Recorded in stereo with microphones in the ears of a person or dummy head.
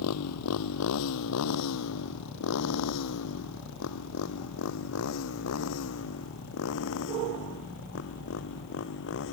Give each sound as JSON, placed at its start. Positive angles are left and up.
{"t": 0.0, "sound": "a motorcycle", "side_deg": 85}